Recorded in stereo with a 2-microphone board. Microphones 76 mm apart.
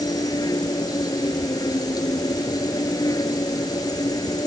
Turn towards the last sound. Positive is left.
turn(degrees=60)  # may be behind; listen again after turning